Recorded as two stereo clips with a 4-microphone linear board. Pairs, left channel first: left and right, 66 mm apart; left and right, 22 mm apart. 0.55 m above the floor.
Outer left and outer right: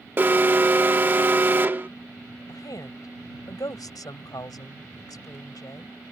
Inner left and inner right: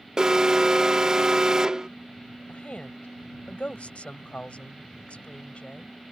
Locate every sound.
0.2 s an alarm: 30° right (ahead or behind)
2.5 s a woman speaking: 70° left (ahead or behind)